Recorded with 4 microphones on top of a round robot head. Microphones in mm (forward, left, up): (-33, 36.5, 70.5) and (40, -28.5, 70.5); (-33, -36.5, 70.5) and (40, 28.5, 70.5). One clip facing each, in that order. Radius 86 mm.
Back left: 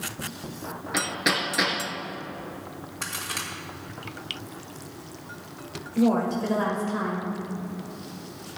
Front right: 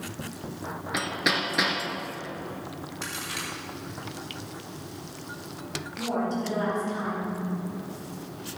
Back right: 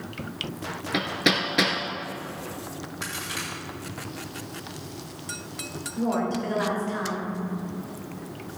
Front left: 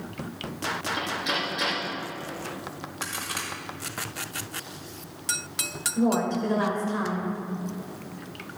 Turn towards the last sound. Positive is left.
turn(degrees=115)